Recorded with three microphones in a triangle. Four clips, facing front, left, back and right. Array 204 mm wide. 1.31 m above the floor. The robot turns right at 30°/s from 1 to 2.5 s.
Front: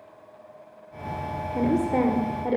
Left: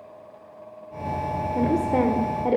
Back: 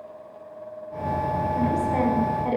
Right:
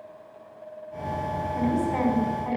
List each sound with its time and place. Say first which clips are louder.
1.6 s a woman speaking: left 4 dB, front 3 dB; 45° left, 5.5 m; by 2.6 s 75° left, 5.5 m